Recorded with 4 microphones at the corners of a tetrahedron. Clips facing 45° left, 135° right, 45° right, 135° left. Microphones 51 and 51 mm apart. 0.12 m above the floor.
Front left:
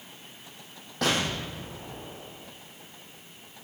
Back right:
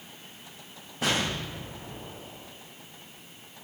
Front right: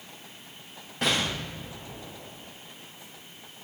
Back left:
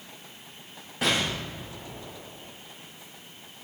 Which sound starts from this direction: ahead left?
An explosion, at 1.0 s.